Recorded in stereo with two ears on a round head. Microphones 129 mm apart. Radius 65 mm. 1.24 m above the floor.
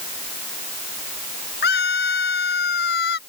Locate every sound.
1.6 s a scream: 75° left (ahead or behind); by 3.2 s 80° left